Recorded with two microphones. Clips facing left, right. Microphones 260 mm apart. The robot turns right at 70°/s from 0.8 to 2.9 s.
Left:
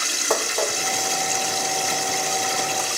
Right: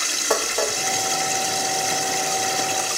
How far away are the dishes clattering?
About 0.7 m.